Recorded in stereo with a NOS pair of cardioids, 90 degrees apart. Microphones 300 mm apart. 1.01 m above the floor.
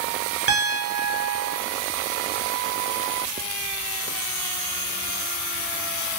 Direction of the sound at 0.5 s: 50° right.